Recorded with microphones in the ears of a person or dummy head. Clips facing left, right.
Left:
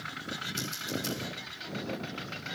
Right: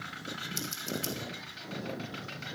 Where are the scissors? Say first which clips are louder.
Left 1 dB; 85° right, 3 m.